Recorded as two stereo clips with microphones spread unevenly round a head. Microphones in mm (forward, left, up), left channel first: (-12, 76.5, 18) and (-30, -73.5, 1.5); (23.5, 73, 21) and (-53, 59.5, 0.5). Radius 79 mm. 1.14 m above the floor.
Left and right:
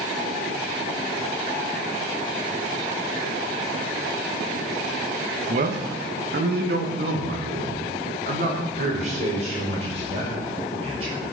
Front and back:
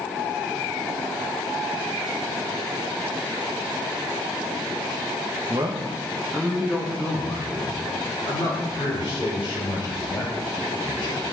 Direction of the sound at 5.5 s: 120° right.